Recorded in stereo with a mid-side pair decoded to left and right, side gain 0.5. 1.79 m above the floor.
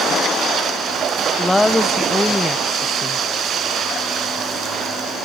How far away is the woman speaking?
About 1.3 m.